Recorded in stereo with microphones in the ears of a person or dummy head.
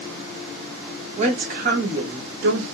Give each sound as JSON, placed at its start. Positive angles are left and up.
{"t": 1.2, "sound": "a woman speaking", "side_deg": -40, "distance_m": 1.1}